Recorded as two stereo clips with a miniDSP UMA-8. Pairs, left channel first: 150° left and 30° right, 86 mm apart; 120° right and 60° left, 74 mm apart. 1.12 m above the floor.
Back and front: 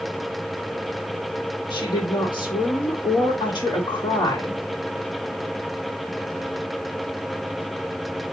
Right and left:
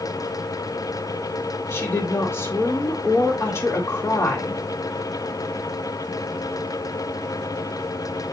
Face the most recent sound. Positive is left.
turn(degrees=-175)